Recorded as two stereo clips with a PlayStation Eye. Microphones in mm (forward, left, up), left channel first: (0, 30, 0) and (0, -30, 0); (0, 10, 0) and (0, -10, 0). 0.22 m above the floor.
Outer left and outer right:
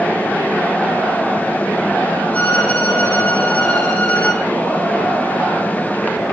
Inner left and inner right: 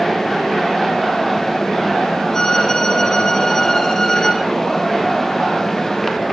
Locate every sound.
2.3 s a violin: 25° left (ahead or behind), 6.5 m